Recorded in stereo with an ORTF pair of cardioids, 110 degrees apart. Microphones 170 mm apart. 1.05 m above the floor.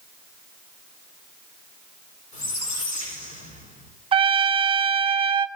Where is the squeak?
50° left, 7 m.